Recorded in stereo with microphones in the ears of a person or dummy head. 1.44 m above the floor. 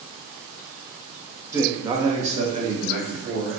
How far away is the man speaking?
About 0.6 m.